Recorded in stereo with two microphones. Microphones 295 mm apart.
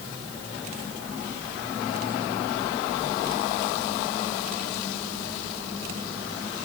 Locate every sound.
Only background noise.